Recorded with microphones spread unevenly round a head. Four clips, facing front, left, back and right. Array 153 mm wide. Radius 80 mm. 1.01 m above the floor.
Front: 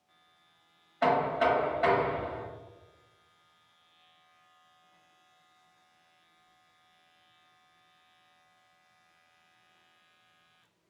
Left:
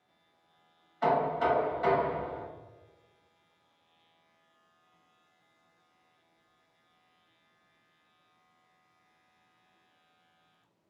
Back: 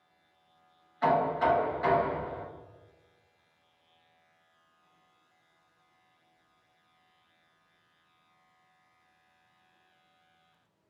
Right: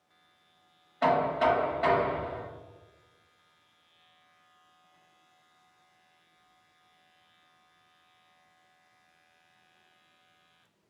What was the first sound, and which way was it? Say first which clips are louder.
Knocking: right 2 dB, even; 50° right.